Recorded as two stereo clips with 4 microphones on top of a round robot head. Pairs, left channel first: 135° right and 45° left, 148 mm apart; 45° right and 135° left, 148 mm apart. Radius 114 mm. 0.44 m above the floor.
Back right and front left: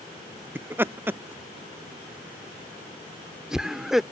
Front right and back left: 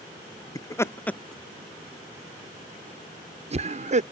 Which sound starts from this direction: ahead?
Laughter, at 0.6 s.